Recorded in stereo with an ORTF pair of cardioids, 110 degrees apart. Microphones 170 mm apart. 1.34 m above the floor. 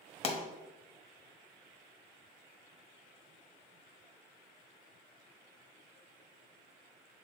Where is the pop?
35° left, 0.8 m.